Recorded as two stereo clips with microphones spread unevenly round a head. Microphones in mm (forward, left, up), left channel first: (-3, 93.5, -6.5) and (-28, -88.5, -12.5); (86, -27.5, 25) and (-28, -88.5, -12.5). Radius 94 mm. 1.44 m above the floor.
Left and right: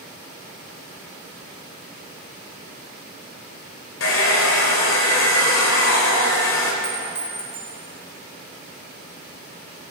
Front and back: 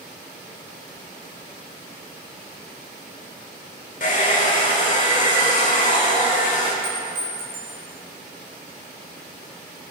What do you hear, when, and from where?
4.0 s a hair dryer: 65° left, 3.5 m
6.8 s a clink: 160° right, 7 m